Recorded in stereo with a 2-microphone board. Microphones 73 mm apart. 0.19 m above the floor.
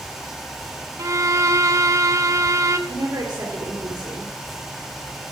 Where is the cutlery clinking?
I don't hear cutlery clinking.